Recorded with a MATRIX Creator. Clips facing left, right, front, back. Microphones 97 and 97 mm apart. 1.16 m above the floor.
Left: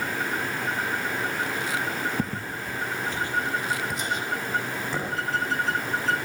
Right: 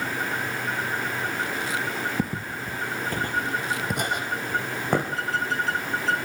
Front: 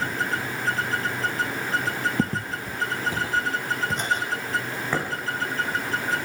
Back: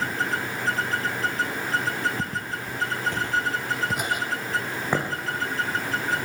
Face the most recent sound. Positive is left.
turn(degrees=-110)